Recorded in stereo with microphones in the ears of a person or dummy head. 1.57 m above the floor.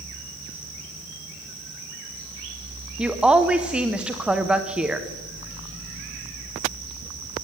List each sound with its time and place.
3.0 s a woman speaking: 5° right (ahead or behind), 0.8 m